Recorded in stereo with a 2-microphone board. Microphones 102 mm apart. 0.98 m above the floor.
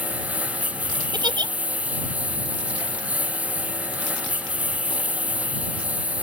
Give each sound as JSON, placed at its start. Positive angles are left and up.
{"t": 0.0, "sound": "a lawn mower", "side_deg": -15}
{"t": 1.1, "sound": "a giggle", "side_deg": -45}